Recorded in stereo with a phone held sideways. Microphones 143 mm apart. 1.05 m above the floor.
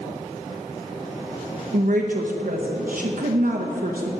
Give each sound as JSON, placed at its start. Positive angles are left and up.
{"t": 1.7, "sound": "a woman speaking", "side_deg": -70, "distance_m": 0.9}